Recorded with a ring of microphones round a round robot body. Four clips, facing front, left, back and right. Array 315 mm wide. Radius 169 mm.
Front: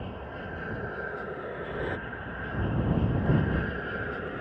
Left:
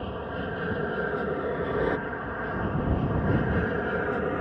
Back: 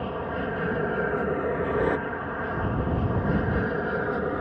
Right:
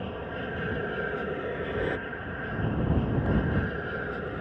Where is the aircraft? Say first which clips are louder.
Left 2 dB, back 9 dB; 170° left; by 4.4 s 140° left.